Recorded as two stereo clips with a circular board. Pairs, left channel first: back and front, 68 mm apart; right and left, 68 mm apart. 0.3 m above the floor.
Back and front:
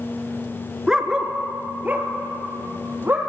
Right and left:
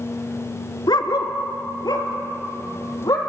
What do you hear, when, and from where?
0.9 s a dog barking: 80° right, 1.4 m; by 3.2 s 60° right, 3.5 m